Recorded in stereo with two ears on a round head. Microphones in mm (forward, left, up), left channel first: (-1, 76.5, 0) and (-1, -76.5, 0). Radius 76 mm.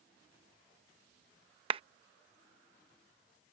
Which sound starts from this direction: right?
A clap, at 1.7 s.